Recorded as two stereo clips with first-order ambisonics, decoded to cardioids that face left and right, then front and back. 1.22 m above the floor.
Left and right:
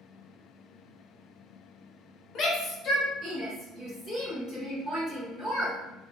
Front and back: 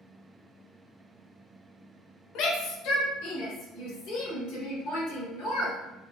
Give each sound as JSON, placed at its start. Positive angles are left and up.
{"t": 2.4, "sound": "a shout", "azimuth_deg": 35, "distance_m": 0.9}